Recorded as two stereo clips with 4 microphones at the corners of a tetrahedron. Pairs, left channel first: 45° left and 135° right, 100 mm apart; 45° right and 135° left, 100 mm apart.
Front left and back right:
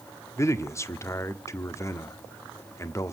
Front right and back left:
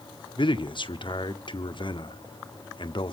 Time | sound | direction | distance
0.4 | a man speaking | 15° right | 0.8 m